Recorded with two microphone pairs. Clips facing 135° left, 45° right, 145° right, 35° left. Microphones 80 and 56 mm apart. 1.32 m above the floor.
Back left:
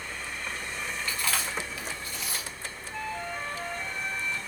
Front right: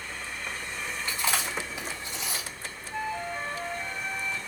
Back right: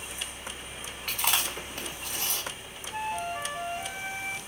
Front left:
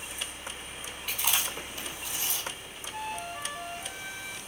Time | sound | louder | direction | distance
1.1 | chewing | front right 3 dB, back right 2 dB | 115° right | 2.5 m
2.9 | a flute | front right 3 dB, back right 5 dB | 115° right | 0.6 m